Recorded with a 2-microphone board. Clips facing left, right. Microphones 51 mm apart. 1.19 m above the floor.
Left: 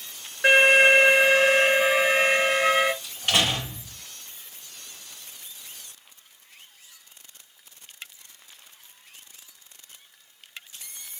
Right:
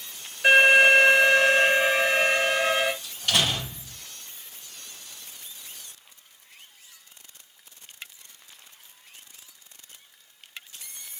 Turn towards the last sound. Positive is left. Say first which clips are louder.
# left 1 dB
turn(degrees=30)  # may be behind; listen again after turning